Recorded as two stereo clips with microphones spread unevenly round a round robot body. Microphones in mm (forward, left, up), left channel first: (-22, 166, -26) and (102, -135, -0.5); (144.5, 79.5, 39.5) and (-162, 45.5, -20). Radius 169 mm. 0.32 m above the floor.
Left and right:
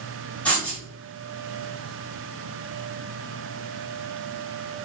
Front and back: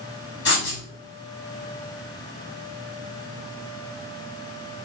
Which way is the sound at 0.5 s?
40° left.